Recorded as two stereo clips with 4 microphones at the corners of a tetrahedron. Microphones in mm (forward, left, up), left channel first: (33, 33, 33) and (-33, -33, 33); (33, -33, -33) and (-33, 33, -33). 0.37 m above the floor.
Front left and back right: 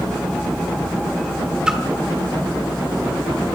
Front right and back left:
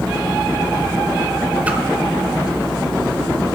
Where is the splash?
165° left, 1.2 m.